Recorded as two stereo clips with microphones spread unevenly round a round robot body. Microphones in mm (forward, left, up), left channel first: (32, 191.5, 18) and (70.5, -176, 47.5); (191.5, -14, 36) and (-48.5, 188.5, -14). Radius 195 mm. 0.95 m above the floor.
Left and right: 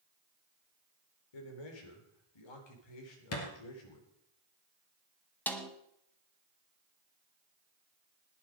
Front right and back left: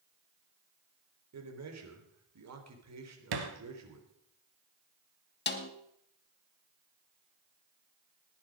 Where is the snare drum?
10° left, 1.5 m.